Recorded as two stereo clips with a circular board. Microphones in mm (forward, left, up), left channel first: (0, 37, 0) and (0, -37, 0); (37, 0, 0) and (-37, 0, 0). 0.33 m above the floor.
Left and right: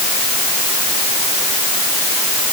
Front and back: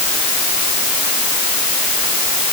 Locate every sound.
Only background noise.